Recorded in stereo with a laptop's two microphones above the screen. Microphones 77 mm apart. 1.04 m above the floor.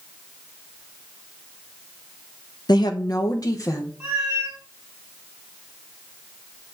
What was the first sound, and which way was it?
A woman speaking, 65° left (ahead or behind).